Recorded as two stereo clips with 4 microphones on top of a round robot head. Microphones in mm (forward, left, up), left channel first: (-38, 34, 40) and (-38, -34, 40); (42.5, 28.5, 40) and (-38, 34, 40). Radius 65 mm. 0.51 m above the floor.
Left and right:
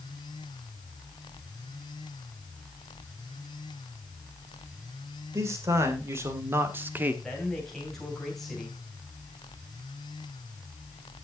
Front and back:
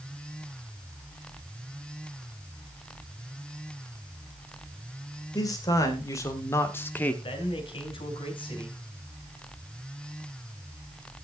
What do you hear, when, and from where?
5.3 s a man speaking: 45° right, 2.5 m; by 7.1 s 55° right, 1.2 m
7.2 s a man speaking: 5° left, 3.5 m